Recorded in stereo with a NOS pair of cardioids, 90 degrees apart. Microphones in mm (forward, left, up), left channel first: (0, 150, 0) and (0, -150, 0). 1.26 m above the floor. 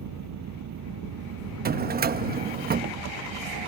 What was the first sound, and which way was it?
An engine running, 65° right.